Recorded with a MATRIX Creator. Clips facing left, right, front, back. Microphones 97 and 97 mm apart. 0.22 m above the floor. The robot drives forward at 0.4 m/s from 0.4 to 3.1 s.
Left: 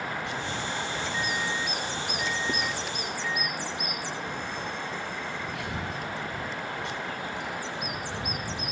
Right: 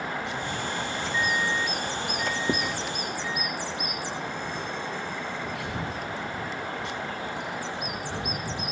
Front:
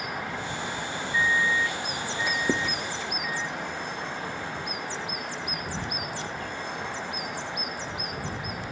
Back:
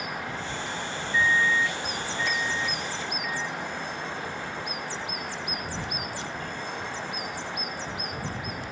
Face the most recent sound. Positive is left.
turn(degrees=-25)